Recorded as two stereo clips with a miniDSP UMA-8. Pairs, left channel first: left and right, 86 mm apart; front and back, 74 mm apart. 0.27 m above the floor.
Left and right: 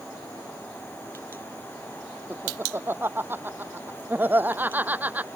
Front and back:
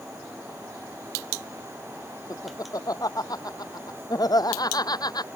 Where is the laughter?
30° right; by 5.3 s 20° right.